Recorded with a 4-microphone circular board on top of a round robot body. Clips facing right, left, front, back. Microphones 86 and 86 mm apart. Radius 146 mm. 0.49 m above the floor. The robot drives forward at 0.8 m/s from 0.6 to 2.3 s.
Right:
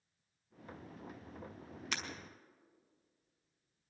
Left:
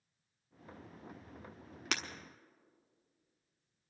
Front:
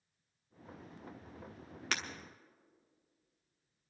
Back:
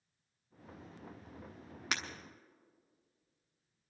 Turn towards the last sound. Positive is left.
turn(degrees=120)